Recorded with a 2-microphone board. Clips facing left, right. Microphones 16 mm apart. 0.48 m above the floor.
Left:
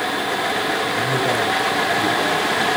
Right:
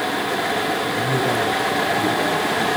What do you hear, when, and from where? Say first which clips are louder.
0.9 s a man speaking: left 1 dB; 15° left (ahead or behind), 9 m